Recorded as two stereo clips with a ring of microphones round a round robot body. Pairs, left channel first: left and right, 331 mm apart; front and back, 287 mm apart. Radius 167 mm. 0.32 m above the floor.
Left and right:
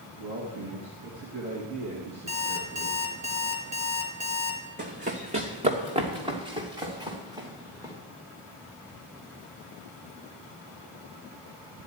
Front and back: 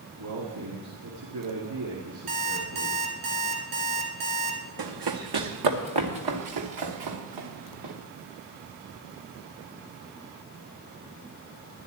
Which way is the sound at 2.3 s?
160° right.